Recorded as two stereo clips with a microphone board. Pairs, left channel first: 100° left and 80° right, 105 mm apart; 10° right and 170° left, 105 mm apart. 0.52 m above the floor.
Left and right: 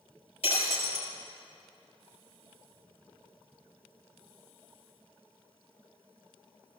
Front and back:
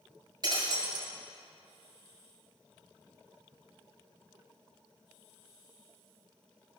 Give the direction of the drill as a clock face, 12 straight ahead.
I don't hear a drill.